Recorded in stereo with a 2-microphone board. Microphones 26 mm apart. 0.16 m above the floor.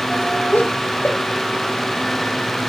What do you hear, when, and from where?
0.5 s laughter: 65° left (ahead or behind), 4.5 m